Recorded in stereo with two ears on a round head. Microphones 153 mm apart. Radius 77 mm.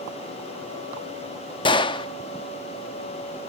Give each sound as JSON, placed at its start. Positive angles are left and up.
{"t": 1.6, "sound": "a gunshot", "side_deg": 30, "distance_m": 1.0}